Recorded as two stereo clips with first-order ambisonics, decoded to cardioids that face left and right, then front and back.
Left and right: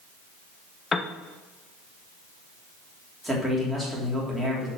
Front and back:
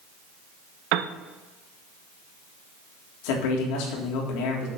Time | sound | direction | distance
0.9 | a piano | 160° left | 0.8 m
3.2 | a man speaking | straight ahead | 3.5 m